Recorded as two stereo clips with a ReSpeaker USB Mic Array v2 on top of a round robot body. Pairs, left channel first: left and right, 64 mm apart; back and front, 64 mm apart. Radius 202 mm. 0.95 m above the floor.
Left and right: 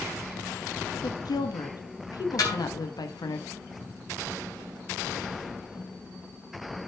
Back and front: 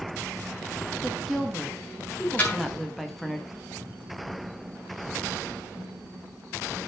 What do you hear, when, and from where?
1.0 s a woman speaking: 90° left, 1.7 m
2.4 s a snare drum: 115° left, 4 m